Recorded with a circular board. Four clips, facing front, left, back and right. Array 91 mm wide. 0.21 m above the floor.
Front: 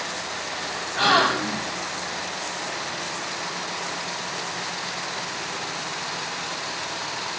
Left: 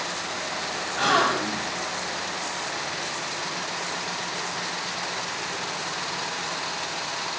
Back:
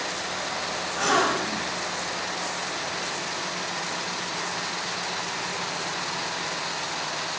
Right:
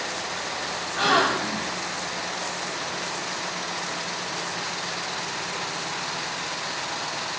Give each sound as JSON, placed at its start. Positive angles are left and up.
{"t": 1.0, "sound": "a gasp", "azimuth_deg": -15, "distance_m": 1.5}